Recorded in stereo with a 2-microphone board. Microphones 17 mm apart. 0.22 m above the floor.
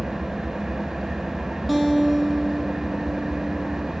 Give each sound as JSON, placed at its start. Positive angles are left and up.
{"t": 0.0, "sound": "an engine running", "side_deg": -35, "distance_m": 1.5}
{"t": 1.7, "sound": "a guitar", "side_deg": -5, "distance_m": 1.5}